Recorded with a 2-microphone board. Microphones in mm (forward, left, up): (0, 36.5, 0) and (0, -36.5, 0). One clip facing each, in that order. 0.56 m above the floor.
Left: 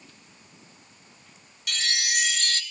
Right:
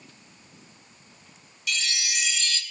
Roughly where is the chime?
Left.